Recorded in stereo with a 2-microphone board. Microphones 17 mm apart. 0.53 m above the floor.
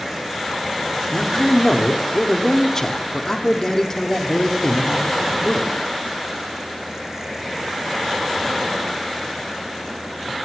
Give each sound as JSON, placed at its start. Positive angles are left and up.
{"t": 1.1, "sound": "a man speaking", "side_deg": 30, "distance_m": 1.1}